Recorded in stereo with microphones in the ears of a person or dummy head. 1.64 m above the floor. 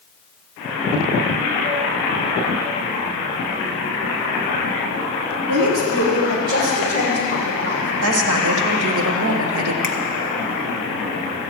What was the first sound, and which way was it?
A woman speaking, 85° right.